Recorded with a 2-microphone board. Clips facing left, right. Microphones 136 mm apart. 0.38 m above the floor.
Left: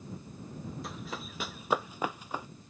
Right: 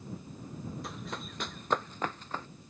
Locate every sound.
0.8 s running footsteps: centre (ahead or behind); by 2.5 s 10° left (ahead or behind)